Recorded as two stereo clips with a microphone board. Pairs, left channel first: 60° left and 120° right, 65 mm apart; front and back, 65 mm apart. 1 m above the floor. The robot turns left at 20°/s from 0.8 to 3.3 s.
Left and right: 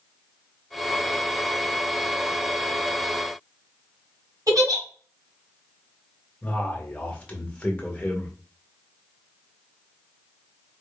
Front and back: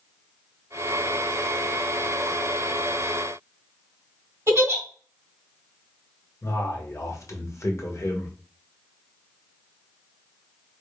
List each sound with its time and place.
4.5 s a giggle: 140° right, 1.9 m
6.4 s a man speaking: 5° right, 1.2 m